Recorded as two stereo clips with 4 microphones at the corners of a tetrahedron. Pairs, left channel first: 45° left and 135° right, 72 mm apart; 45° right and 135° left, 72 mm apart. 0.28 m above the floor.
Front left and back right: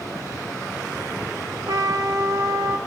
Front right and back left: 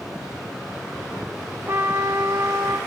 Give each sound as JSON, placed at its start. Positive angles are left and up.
{"t": 1.7, "sound": "a trumpet", "azimuth_deg": -165, "distance_m": 1.9}